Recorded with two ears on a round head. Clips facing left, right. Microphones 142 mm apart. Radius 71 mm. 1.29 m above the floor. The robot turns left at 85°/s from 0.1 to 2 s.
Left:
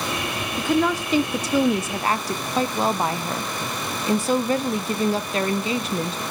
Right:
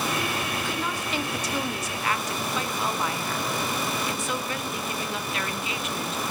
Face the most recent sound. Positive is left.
turn(degrees=30)